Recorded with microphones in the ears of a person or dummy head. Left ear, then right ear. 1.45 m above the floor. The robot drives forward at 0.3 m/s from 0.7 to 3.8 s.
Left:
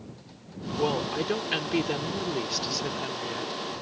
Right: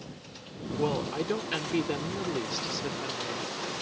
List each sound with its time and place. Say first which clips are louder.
0.8 s a woman speaking: left 3 dB; 15° left (ahead or behind); by 3.5 s 20° left (ahead or behind)